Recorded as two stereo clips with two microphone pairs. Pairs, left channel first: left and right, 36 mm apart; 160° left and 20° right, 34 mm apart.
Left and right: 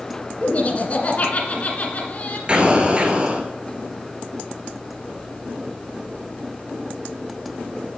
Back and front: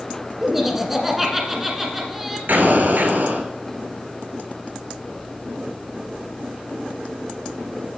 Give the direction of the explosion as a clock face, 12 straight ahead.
1 o'clock.